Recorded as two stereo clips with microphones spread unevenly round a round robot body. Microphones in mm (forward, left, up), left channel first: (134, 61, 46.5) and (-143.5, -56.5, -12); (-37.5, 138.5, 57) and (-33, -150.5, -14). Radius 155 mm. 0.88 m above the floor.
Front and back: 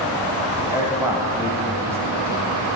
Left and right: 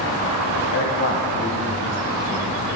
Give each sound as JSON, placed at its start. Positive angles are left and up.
{"t": 0.7, "sound": "a man speaking", "azimuth_deg": 140, "distance_m": 0.9}